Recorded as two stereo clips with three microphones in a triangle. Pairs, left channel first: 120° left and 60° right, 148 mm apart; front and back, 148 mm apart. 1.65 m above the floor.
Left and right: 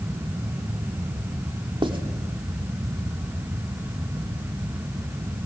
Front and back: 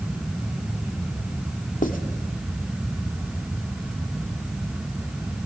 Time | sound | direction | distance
1.8 | writing | 5° right | 2.5 m